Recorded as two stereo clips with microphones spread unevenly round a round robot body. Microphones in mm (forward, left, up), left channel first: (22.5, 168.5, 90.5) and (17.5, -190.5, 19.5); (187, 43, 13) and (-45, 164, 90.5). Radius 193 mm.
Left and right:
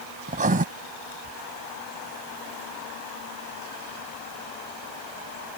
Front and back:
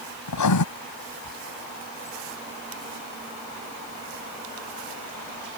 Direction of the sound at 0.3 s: 20° right.